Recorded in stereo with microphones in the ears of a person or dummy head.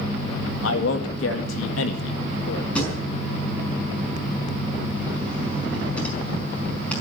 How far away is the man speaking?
About 2.0 m.